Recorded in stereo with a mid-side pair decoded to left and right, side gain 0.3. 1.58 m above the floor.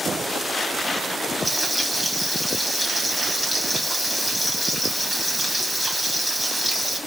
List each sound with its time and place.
1.4 s frying: 20° right, 2 m